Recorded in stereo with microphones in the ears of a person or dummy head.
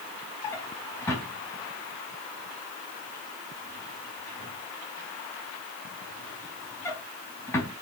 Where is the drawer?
15° left (ahead or behind), 4.5 m.